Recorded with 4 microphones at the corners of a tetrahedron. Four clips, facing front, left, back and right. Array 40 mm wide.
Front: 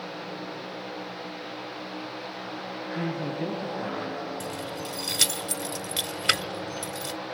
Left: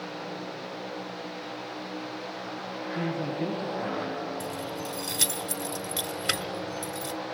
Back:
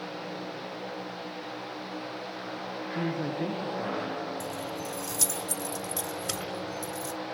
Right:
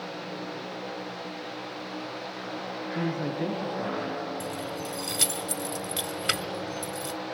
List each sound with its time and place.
3.0 s a man speaking: 120° right, 9 m; by 4.1 s 130° right, 9 m
4.4 s keys jangling: 10° right, 1.5 m